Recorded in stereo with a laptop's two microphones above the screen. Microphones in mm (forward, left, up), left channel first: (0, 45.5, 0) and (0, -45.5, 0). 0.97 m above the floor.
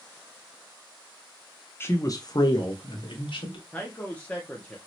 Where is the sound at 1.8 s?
25° left (ahead or behind), 0.5 m; by 3.6 s 70° left (ahead or behind), 1.2 m.